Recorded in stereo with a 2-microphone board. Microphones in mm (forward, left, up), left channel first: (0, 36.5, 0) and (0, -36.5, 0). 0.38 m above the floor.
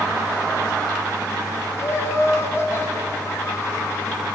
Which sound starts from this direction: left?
Laughter, at 1.8 s.